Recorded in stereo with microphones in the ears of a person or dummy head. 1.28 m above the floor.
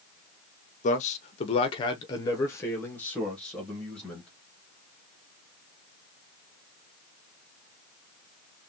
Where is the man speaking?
40° left (ahead or behind), 0.7 m; by 4.3 s 5° left (ahead or behind), 1.8 m.